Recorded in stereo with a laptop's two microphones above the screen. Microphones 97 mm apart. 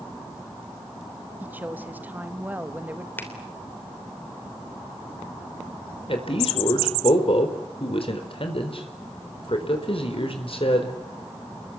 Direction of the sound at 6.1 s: 60° left (ahead or behind).